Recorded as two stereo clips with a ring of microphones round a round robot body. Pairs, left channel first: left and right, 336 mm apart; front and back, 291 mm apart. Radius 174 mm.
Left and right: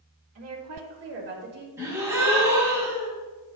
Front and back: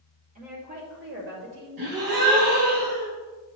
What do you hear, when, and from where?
0.3 s a woman speaking: 120° right, 2 m; by 1.7 s 145° right, 2 m
1.8 s a gasp: 170° right, 2.5 m